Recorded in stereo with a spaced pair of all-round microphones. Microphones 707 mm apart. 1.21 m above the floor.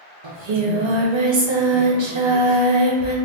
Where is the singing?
45° right (ahead or behind), 0.5 m.